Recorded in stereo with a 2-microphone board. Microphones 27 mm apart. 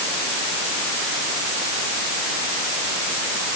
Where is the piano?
I don't hear a piano.